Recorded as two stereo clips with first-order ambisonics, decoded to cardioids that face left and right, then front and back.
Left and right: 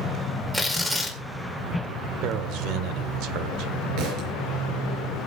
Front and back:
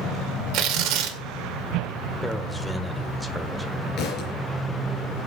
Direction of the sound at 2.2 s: 95° right.